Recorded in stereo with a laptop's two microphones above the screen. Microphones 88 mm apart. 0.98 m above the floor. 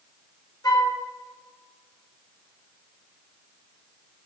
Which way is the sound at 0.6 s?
50° left (ahead or behind).